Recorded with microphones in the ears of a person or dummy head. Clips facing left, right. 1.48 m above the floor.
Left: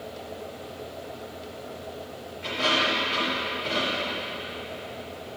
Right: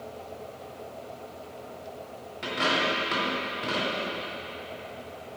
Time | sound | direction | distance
2.4 | a dropped coin | 70° right (ahead or behind) | 4 m